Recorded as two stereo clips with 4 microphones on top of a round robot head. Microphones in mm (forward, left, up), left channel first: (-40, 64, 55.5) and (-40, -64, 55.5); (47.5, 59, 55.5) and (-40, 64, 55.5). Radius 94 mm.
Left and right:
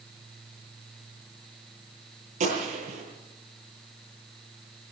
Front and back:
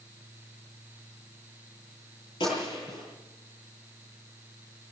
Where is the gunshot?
55° right, 10 m.